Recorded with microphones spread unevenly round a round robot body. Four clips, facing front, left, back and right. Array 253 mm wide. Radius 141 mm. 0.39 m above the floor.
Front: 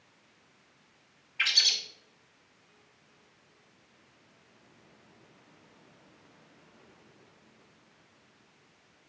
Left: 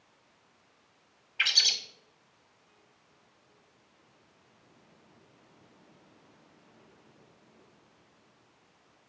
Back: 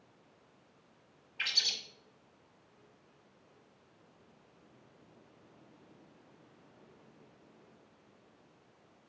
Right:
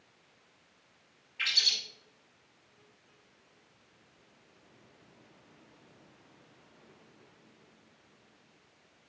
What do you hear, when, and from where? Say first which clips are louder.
1.4 s a bird: left 4 dB, front 7 dB; 135° left, 1.5 m